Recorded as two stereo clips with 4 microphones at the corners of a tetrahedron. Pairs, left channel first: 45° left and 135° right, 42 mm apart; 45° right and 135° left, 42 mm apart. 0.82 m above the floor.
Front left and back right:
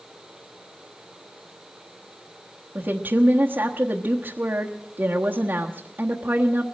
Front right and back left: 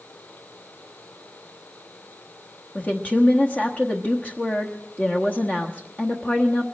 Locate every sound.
2.8 s a woman speaking: 95° right, 1.1 m